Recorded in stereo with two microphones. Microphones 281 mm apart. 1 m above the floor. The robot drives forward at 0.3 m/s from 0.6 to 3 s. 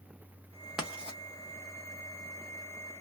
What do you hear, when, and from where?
0.8 s writing: 5° right (ahead or behind), 0.8 m